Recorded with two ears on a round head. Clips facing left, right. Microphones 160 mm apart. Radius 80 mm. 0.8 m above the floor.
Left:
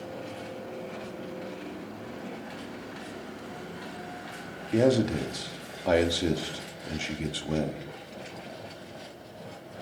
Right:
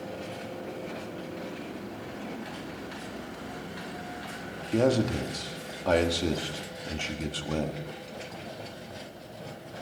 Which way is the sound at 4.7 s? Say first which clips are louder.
Left 2 dB; 10° left (ahead or behind).